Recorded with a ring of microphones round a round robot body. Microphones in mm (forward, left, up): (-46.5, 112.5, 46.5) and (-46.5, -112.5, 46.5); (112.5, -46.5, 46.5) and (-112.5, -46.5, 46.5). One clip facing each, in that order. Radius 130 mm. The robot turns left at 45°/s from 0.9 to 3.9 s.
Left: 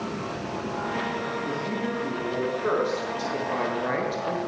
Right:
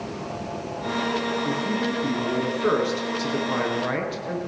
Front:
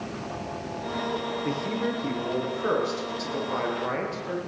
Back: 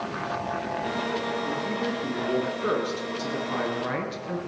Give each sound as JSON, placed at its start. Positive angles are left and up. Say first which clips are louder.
{"t": 1.4, "sound": "a man speaking", "louder": "right 4 dB, front 1 dB", "azimuth_deg": -75, "distance_m": 9.0}